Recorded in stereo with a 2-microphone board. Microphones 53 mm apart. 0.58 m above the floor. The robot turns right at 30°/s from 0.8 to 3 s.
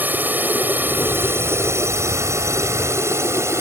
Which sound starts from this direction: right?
A drone, at 0.0 s.